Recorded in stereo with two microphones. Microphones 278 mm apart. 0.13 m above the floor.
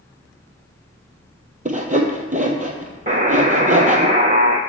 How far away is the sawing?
About 1.2 m.